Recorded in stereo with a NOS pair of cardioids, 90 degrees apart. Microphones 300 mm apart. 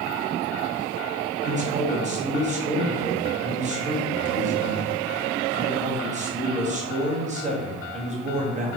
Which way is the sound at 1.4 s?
20° right.